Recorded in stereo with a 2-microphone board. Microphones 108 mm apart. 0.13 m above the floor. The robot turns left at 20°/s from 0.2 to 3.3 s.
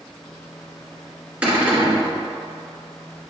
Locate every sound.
1.4 s a cupboard door: 10° right (ahead or behind), 1.8 m; by 2.1 s 20° right (ahead or behind), 1.8 m